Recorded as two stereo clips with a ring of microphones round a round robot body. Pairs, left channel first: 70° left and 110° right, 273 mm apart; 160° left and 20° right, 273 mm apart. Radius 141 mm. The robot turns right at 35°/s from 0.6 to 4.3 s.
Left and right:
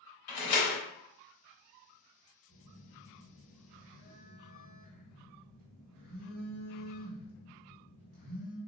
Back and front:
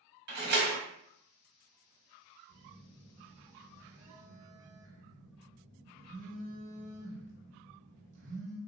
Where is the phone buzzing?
150° right, 1.4 m; by 8.6 s 85° right, 1.4 m.